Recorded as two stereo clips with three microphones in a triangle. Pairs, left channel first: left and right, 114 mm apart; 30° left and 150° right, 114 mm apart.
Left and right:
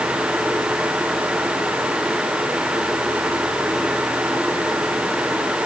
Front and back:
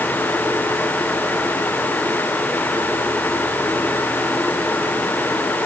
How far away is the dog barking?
I don't hear a dog barking.